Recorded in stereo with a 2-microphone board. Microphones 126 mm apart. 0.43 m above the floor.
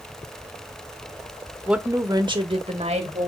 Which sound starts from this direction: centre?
A woman speaking, at 1.7 s.